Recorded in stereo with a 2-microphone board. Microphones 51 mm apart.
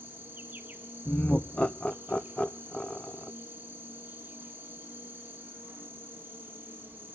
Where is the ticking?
I don't hear ticking.